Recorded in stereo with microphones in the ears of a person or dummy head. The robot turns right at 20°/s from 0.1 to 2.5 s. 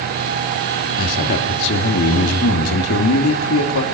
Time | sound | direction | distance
1.0 | a man speaking | 50° left | 2.5 m